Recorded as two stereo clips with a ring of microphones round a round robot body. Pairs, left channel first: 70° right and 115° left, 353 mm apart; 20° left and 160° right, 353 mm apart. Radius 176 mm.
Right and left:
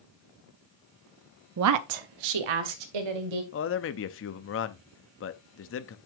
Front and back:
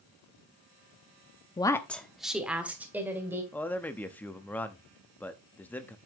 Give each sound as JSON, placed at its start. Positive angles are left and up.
{"t": 1.6, "sound": "a woman speaking", "azimuth_deg": 95, "distance_m": 0.5}
{"t": 3.5, "sound": "a man speaking", "azimuth_deg": -60, "distance_m": 0.6}